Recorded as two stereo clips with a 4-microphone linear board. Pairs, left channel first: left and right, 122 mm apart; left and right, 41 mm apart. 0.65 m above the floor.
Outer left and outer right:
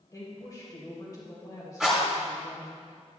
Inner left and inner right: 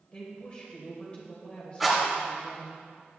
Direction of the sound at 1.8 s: 5° right (ahead or behind).